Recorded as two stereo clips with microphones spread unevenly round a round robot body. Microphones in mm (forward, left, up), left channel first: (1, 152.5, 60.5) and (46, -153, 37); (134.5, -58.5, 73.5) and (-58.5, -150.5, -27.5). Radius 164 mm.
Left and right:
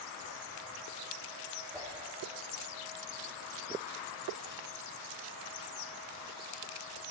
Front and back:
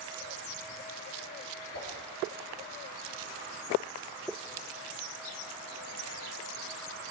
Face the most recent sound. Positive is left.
turn(degrees=10)